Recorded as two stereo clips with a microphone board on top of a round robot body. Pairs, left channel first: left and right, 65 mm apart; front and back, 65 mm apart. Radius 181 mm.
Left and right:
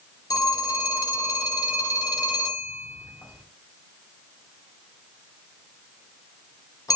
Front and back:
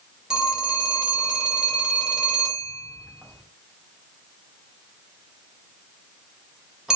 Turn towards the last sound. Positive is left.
turn(degrees=100)